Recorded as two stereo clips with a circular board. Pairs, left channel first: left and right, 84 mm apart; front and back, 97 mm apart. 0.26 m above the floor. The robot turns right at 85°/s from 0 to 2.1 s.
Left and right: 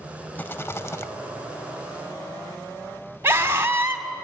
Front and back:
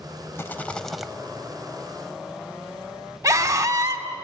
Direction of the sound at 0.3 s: 40° left.